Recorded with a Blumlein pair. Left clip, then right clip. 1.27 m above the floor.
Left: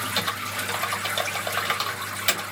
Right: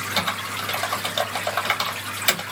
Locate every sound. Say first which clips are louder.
0.2 s typing on a keyboard: right 4 dB; 5° right, 1.3 m